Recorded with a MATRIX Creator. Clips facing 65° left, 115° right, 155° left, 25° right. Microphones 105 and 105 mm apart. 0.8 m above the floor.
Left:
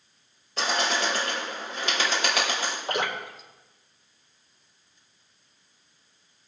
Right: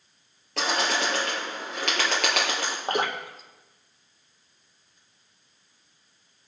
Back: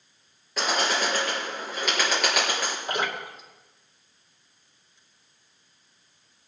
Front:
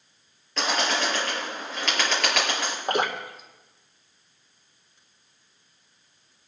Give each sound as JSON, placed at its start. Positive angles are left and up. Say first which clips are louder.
{"t": 0.6, "sound": "a bird", "louder": "even, even", "azimuth_deg": -120, "distance_m": 5.0}
{"t": 2.9, "sound": "dripping", "louder": "right 3 dB, front 7 dB", "azimuth_deg": -65, "distance_m": 1.9}